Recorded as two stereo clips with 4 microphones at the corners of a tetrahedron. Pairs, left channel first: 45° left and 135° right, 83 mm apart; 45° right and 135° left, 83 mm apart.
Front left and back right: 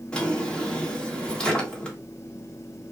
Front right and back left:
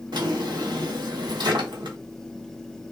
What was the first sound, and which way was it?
A drawer, 120° left.